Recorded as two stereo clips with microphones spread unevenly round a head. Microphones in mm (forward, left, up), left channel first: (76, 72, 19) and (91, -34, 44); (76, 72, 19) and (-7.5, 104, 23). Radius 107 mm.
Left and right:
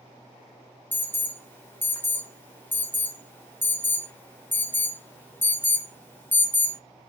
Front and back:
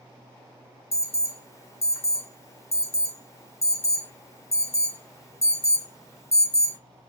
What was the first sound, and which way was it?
An alarm, 30° left.